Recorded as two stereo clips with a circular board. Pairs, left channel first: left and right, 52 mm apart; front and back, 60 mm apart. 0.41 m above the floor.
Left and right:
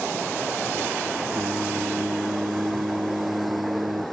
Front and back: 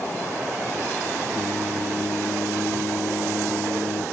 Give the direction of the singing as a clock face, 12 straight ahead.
2 o'clock.